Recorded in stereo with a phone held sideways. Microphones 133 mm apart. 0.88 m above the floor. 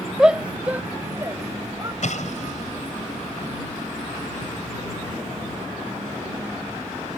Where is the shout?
5° right (ahead or behind); by 1.9 s 30° right (ahead or behind).